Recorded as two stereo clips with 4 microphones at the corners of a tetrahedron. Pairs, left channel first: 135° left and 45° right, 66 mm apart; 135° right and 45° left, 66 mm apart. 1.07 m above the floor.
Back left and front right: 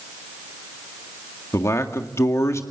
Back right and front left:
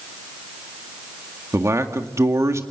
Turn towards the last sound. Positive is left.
turn(degrees=90)